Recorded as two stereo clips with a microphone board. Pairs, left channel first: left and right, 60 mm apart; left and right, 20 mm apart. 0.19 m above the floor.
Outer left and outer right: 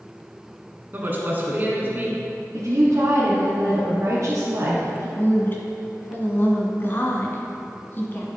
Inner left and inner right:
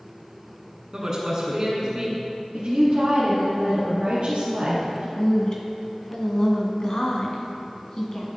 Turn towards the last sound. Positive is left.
turn(degrees=35)  # may be behind; listen again after turning